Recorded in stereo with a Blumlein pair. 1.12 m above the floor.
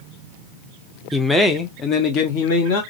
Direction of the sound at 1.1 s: 5° right.